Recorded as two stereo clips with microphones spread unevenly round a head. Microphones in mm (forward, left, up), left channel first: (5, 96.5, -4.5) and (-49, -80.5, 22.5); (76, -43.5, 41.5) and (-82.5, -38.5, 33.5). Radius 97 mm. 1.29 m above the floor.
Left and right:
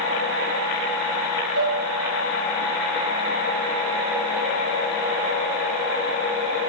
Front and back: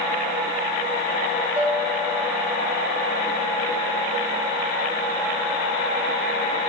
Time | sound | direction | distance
1.6 | a bell | 100° right | 2.5 m